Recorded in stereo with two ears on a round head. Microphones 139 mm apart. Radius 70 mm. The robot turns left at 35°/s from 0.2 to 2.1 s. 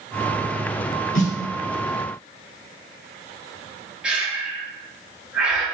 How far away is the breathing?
About 0.7 m.